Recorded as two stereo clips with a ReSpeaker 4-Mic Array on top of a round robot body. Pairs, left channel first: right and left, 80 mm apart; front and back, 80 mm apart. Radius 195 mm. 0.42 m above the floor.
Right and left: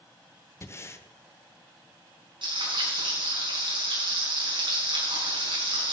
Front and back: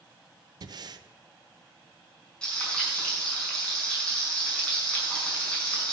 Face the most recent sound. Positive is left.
turn(degrees=80)